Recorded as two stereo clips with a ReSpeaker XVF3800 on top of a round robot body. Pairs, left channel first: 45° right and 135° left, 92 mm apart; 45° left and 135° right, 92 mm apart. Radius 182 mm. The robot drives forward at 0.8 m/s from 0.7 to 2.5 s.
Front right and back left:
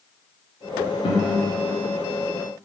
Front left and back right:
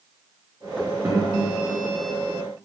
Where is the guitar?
65° right, 0.5 m; by 1.3 s 90° right, 0.5 m.